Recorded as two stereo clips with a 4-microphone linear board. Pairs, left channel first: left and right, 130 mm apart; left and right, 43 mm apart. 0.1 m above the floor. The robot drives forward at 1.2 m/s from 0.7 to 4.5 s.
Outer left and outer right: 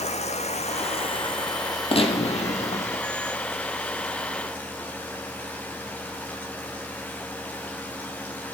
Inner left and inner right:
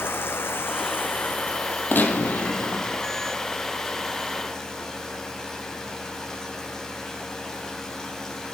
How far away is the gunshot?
About 3 m.